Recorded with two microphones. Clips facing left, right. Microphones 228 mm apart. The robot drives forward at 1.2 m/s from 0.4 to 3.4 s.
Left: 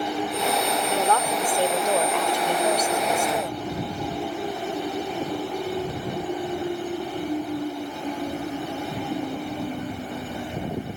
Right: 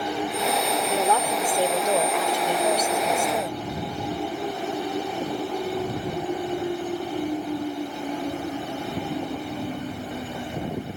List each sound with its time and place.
0.9 s a woman speaking: 10° right (ahead or behind); by 3.6 s 5° right (ahead or behind)